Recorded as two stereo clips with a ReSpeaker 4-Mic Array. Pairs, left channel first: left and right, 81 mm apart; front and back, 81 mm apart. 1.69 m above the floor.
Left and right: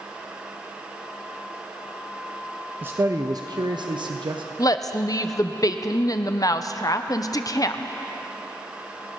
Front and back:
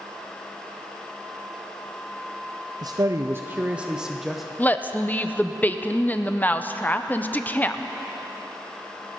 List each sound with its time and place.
2.8 s a man speaking: 155° right, 0.6 m; by 4.5 s 90° right, 1.2 m
4.6 s a woman speaking: 65° left, 0.7 m